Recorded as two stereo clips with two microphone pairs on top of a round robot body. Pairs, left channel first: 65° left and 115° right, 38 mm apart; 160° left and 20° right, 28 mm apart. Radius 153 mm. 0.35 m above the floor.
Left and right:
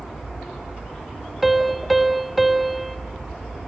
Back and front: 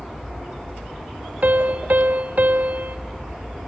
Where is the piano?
30° right, 0.9 m.